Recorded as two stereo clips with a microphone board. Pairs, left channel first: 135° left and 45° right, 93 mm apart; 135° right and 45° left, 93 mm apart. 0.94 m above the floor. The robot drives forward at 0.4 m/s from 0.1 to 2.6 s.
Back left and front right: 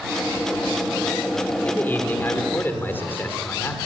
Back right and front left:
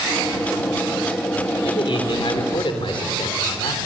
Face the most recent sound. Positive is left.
turn(degrees=-160)